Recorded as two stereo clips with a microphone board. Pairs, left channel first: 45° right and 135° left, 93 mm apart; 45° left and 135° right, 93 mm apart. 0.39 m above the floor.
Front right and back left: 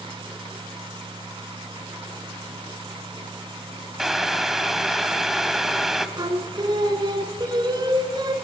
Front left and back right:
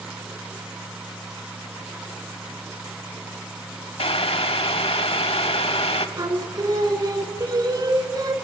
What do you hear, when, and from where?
4.0 s boiling: 50° left, 0.8 m
6.2 s singing: 175° left, 1.2 m